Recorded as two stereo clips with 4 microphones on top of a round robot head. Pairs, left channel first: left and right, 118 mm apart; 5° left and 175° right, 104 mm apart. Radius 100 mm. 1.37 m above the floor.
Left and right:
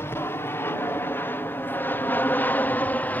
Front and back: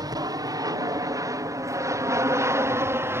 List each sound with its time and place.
0.0 s an aircraft: 155° left; by 3.2 s 150° left